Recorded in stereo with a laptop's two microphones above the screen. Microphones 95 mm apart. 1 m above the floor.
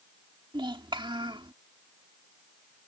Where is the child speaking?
55° right (ahead or behind).